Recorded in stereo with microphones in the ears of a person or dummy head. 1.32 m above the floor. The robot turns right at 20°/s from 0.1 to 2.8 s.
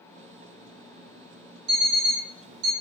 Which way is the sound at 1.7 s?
55° right (ahead or behind).